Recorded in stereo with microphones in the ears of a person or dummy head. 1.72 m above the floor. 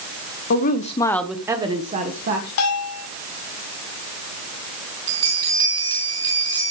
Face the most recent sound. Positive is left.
turn(degrees=-75)  # may be behind; listen again after turning